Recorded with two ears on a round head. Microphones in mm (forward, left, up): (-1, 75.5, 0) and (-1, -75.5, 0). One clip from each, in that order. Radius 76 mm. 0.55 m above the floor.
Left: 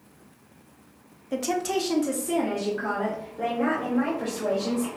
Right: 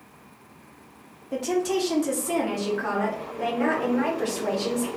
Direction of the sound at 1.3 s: 30° left (ahead or behind).